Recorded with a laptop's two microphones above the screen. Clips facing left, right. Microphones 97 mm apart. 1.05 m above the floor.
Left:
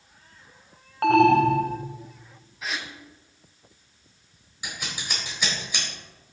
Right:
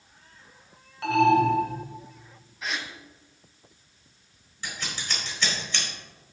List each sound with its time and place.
1.0 s an alarm: 55° left (ahead or behind), 1.0 m
2.6 s a gasp: centre (ahead or behind), 1.1 m
4.6 s scissors: 10° left (ahead or behind), 4 m